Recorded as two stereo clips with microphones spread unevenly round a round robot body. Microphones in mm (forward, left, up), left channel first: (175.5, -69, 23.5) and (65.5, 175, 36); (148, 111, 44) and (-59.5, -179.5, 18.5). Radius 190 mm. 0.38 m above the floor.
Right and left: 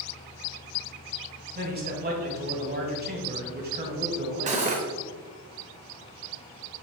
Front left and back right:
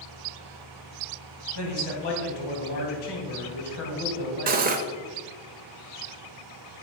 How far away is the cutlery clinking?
About 0.6 m.